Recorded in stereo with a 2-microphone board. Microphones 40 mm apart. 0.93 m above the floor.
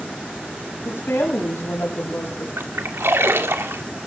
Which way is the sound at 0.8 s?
75° left (ahead or behind).